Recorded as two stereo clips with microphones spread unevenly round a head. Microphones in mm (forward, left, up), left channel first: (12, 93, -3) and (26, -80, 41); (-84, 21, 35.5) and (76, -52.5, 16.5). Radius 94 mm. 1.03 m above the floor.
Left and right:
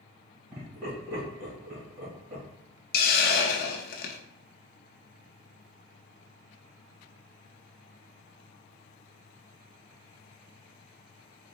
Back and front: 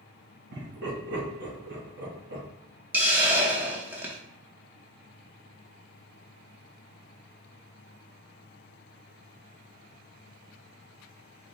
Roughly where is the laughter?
Ahead right.